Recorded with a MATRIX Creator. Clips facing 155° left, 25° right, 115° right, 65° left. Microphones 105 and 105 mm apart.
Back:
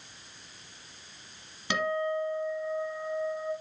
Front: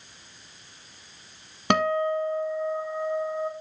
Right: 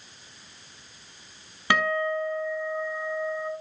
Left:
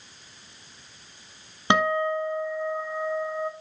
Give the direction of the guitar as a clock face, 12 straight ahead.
12 o'clock.